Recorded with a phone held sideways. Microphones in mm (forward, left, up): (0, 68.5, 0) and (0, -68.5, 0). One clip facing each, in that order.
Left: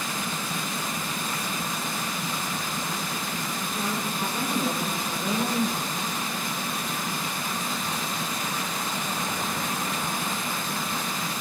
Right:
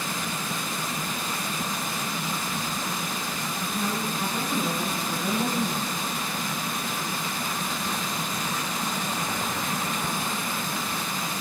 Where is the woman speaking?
20° left (ahead or behind), 5 m; by 5.9 s 25° left (ahead or behind), 4 m.